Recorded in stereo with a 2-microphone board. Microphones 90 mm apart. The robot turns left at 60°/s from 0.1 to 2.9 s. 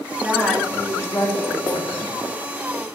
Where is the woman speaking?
165° right, 2 m; by 2.1 s 80° left, 2 m.